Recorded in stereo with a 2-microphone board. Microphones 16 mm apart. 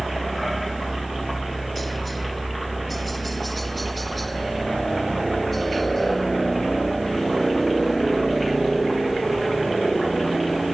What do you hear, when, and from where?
0.0 s a helicopter: 10° left (ahead or behind); by 10.8 s 15° left (ahead or behind)